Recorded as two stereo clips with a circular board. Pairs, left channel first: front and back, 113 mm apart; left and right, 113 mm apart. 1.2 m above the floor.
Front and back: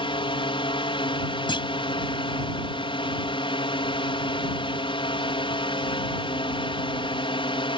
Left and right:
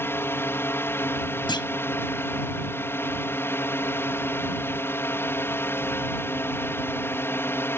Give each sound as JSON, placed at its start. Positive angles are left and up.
{"t": 0.0, "sound": "a drone", "azimuth_deg": 25}
{"t": 1.5, "sound": "a clunk", "azimuth_deg": 45}